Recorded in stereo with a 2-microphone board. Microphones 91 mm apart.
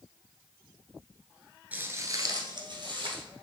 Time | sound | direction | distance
1.7 | footsteps | 20° right (ahead or behind) | 1.1 m